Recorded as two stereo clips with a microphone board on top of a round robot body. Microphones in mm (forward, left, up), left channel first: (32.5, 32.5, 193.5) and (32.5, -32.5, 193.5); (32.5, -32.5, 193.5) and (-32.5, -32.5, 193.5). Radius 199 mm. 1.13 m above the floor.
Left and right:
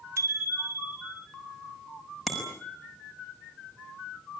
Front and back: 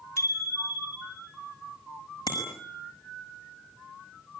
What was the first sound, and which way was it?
A bicycle bell, 40° right.